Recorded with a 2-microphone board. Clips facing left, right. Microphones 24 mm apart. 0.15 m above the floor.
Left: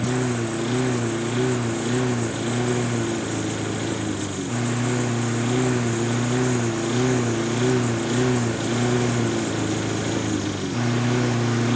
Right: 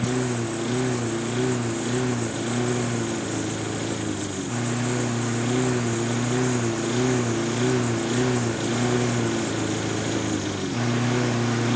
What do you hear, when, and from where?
0.0 s a lawn mower: 10° left (ahead or behind); by 11.8 s centre (ahead or behind)